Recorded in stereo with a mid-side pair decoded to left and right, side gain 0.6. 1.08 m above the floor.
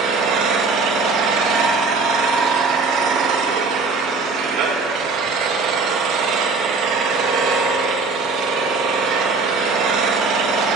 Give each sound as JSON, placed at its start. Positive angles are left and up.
{"t": 0.0, "sound": "an engine running", "azimuth_deg": -65, "distance_m": 1.3}